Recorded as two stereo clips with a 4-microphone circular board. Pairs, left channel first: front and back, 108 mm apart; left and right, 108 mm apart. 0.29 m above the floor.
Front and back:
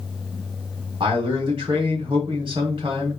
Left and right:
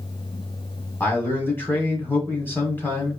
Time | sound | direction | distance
1.0 | a man speaking | 155° left | 1.8 m